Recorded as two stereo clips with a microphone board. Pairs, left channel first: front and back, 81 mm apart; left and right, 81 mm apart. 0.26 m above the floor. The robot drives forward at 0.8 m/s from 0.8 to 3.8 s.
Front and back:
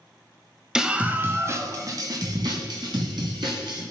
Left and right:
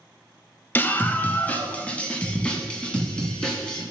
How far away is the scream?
About 1.0 m.